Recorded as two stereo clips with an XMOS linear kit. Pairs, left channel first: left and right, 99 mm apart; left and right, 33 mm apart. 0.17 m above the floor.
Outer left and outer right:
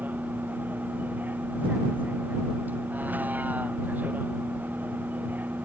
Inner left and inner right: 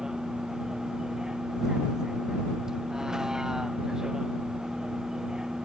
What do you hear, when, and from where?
0.0 s a vehicle: 20° right (ahead or behind)